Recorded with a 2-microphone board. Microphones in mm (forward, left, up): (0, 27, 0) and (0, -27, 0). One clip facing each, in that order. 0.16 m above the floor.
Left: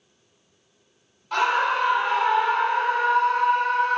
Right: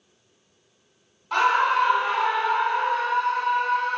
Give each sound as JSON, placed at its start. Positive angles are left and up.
{"t": 1.3, "sound": "a scream", "side_deg": -20, "distance_m": 1.2}